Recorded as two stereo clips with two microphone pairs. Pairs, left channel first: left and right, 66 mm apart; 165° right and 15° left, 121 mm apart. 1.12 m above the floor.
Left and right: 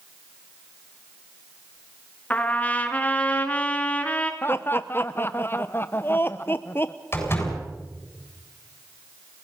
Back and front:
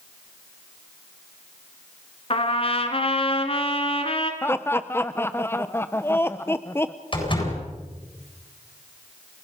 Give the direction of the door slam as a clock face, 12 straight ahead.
7 o'clock.